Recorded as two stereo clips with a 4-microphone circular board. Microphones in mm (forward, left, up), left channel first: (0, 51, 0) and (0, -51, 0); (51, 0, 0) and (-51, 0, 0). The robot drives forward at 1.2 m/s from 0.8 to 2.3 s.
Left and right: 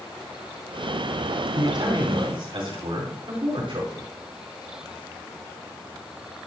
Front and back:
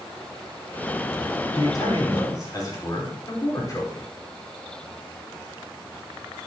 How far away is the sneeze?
No sneeze in this recording.